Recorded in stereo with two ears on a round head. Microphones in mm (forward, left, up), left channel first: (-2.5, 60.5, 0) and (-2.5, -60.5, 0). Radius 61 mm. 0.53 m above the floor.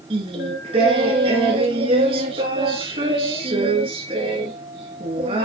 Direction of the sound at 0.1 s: 40° right (ahead or behind).